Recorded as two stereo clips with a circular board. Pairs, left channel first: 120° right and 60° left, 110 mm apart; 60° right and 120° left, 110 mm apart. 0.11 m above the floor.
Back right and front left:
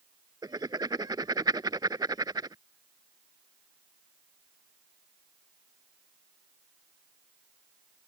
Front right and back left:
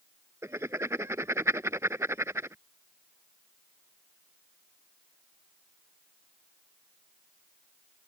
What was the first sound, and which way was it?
Writing, 75° left.